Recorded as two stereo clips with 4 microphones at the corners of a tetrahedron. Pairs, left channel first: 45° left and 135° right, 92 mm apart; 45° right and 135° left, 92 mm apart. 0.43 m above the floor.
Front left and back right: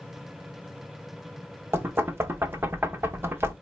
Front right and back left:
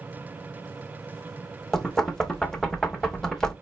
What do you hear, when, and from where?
1.7 s knocking: 120° right, 0.6 m